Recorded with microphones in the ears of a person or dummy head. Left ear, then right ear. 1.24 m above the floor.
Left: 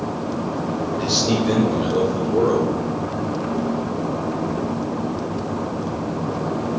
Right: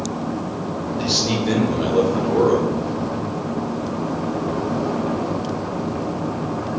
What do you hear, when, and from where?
1.0 s a man speaking: 20° right (ahead or behind), 1.0 m